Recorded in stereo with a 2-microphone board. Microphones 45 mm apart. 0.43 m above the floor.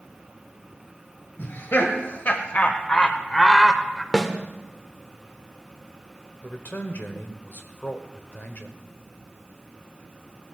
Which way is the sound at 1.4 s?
55° left (ahead or behind).